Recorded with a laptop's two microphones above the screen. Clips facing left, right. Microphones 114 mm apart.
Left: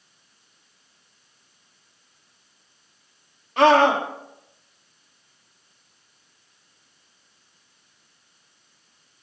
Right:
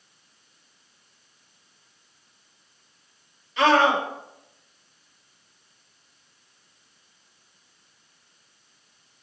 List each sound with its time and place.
3.6 s a scream: 55° left (ahead or behind), 1.6 m